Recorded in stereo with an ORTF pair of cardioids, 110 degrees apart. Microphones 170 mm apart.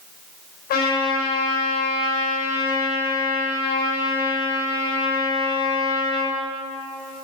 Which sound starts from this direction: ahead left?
A trumpet, at 0.7 s.